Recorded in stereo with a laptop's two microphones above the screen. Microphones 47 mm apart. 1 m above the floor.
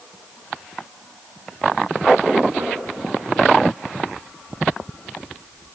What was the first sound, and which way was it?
Knocking, 60° right (ahead or behind).